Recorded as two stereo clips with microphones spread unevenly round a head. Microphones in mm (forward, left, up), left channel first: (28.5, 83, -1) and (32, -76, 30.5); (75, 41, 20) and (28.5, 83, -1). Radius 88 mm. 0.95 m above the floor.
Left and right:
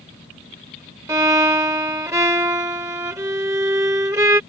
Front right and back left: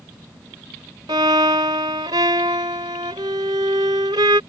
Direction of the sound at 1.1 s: 160° right.